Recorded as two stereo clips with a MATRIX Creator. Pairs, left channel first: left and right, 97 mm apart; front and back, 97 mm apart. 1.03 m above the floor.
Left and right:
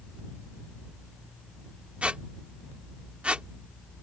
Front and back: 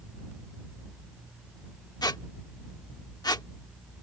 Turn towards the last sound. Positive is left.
turn(degrees=-15)